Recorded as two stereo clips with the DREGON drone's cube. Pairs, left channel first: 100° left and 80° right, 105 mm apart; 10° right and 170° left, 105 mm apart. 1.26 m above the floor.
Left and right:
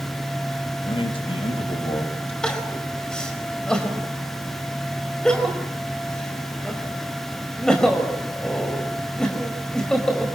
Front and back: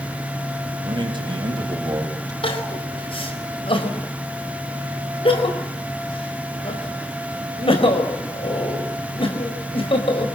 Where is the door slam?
No door slam in this recording.